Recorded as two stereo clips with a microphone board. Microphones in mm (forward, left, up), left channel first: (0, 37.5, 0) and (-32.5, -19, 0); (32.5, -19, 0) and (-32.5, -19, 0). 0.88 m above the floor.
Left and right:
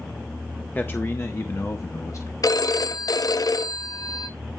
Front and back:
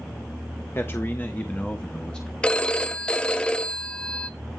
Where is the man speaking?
20° left, 0.9 m; by 2.3 s 75° left, 1.4 m.